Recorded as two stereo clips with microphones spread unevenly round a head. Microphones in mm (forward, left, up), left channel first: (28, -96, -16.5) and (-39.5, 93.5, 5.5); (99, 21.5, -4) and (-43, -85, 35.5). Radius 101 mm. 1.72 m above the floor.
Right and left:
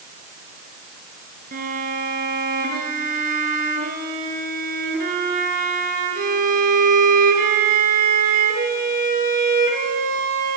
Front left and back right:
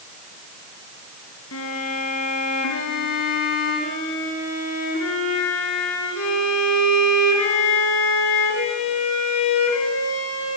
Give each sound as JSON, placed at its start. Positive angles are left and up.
{"t": 1.5, "sound": "a violin", "azimuth_deg": 70, "distance_m": 4.0}